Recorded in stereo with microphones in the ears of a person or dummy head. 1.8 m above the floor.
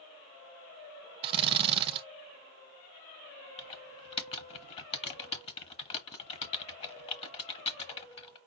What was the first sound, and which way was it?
A drill, 30° right (ahead or behind).